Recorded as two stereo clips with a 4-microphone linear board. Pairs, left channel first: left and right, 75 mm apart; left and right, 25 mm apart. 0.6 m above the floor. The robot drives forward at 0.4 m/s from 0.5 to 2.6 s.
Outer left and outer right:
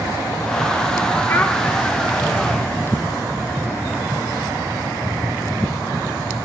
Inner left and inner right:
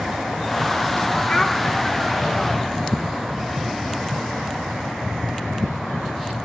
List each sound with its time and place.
1.3 s a child speaking: 30° left (ahead or behind), 0.6 m; by 1.6 s 25° left (ahead or behind), 0.7 m